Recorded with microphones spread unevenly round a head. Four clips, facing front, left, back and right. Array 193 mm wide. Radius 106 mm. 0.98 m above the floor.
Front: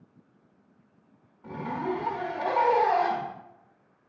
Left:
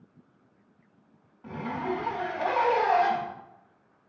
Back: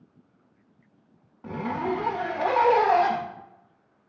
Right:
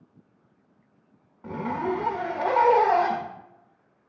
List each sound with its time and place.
1.4 s a zipper: 130° right, 1.1 m